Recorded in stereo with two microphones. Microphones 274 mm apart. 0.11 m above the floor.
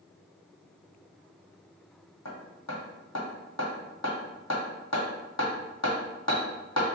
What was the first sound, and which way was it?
Hammering, 75° left (ahead or behind).